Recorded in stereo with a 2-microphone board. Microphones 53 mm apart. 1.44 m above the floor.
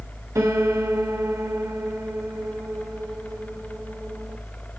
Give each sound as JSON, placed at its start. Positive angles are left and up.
{"t": 0.3, "sound": "a piano", "side_deg": -75, "distance_m": 1.0}